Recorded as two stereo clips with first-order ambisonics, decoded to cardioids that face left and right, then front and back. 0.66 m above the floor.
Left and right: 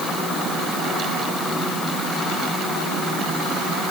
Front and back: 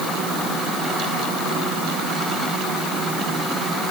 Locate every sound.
Only background noise.